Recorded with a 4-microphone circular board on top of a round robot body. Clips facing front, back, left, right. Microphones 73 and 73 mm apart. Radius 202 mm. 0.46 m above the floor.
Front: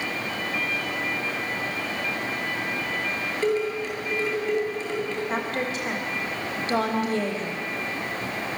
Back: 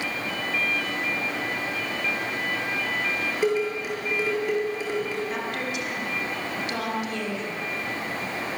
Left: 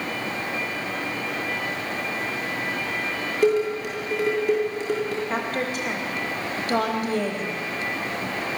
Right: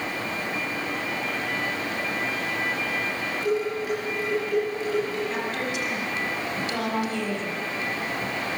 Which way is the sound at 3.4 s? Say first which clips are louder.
Even, left 6 dB; 105° left.